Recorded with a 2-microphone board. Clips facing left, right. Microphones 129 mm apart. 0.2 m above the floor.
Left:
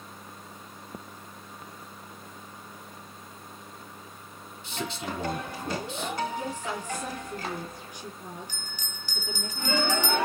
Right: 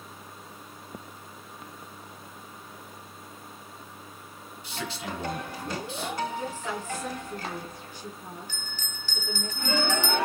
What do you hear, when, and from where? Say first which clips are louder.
4.6 s a man speaking: left 1 dB; 25° left (ahead or behind), 1.1 m
6.4 s a woman speaking: even; 15° left (ahead or behind), 3 m
8.5 s a bell: right 1 dB; 15° left (ahead or behind), 1.3 m